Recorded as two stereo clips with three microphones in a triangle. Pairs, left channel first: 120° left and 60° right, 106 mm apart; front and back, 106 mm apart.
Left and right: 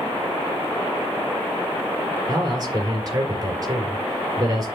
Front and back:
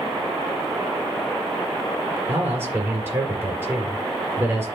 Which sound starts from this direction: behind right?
A man speaking, at 2.3 s.